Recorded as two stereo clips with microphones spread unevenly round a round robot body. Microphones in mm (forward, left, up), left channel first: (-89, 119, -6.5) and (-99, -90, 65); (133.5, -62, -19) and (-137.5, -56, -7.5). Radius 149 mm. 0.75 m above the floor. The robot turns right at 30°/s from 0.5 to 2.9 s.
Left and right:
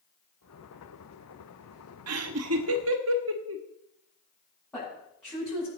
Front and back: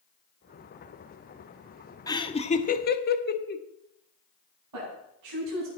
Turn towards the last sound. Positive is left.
turn(degrees=165)